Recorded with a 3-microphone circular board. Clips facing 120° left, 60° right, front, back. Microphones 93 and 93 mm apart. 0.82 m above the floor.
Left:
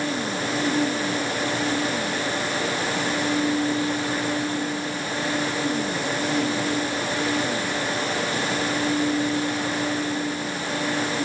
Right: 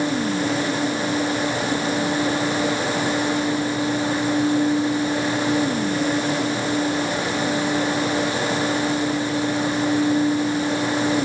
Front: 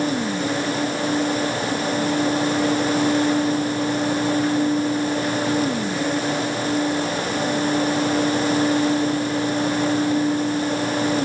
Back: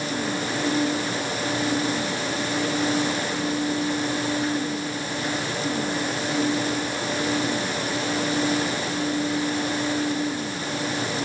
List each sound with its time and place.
Only background noise.